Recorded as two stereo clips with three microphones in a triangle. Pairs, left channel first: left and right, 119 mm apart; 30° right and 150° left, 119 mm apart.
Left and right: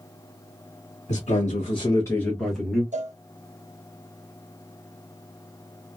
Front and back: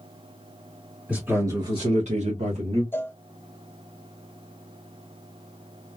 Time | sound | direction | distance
1.1 | a man speaking | 70° left | 1.0 m
2.9 | a cowbell | 105° right | 0.6 m